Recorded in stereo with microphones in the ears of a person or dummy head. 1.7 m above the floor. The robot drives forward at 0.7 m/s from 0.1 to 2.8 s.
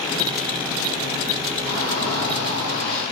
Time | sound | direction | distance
1.7 | a shout | 75° right (ahead or behind) | 1.9 m